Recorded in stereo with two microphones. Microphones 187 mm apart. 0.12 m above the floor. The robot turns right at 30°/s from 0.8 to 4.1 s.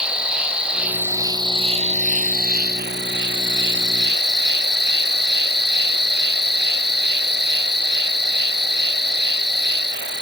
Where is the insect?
175° right, 0.8 m; by 10.2 s 75° right, 0.8 m.